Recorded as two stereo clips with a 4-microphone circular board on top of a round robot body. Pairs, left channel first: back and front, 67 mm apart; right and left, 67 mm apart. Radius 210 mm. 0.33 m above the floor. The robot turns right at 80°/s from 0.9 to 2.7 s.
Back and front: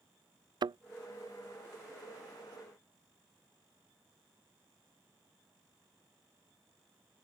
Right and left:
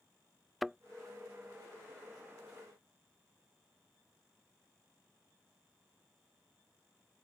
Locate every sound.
0.6 s a thud: straight ahead